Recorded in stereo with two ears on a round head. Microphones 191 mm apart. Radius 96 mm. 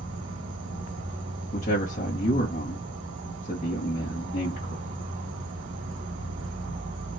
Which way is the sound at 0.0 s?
55° right (ahead or behind).